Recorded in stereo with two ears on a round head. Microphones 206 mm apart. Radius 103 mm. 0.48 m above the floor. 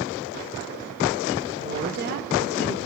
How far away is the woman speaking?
About 1.5 m.